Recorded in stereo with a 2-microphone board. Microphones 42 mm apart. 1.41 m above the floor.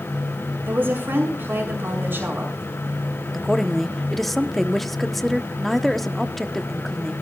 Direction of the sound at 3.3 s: 5° left (ahead or behind).